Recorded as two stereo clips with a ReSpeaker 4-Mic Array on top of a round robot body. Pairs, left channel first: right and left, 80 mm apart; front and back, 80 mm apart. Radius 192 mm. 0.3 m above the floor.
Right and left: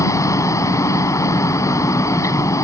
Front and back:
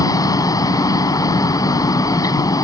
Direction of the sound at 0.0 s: 40° right.